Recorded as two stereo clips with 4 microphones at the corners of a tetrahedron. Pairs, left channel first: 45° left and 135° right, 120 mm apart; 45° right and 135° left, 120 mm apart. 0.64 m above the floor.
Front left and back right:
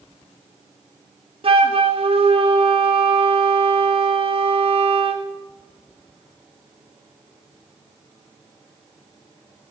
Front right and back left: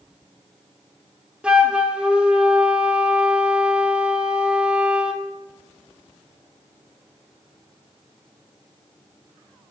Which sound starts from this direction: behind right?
A flute, at 1.4 s.